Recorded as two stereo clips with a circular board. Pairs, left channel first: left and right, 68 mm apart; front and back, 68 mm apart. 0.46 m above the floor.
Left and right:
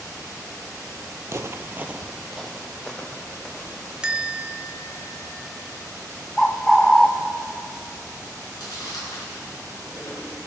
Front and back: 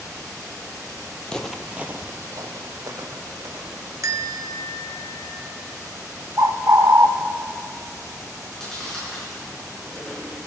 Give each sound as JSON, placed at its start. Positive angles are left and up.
{"t": 1.2, "sound": "footsteps", "azimuth_deg": -70, "distance_m": 0.6}
{"t": 4.0, "sound": "a bell", "azimuth_deg": -165, "distance_m": 0.8}
{"t": 6.4, "sound": "a bird", "azimuth_deg": 175, "distance_m": 0.5}
{"t": 8.4, "sound": "chewing", "azimuth_deg": 80, "distance_m": 3.5}